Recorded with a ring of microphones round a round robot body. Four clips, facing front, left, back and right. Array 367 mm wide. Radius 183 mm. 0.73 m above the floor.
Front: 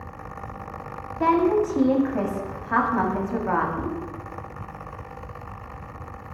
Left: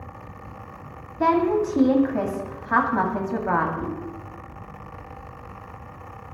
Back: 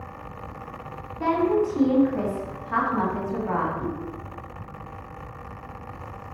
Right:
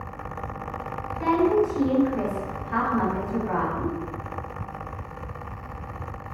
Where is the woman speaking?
65° left, 1.2 m.